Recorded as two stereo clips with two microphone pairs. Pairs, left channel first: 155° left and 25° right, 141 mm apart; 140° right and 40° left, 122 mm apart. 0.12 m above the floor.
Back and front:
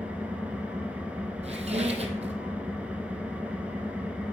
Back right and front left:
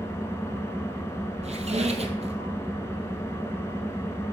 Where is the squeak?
15° left, 0.8 m.